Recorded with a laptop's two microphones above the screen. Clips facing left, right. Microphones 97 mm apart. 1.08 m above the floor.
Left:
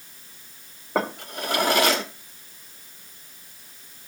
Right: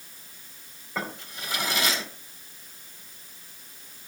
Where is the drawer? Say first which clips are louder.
Left 8 dB; 65° left (ahead or behind), 1.3 m.